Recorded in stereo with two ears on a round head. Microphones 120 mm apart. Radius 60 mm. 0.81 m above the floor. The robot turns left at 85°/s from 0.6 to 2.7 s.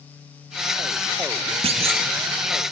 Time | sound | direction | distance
1.6 | a clunk | 75° right | 0.9 m